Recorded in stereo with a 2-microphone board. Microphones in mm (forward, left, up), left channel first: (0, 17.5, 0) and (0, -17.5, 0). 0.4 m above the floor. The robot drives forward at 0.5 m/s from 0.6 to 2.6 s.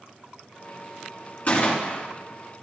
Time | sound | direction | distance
1.5 | a gunshot | 45° left (ahead or behind) | 3 m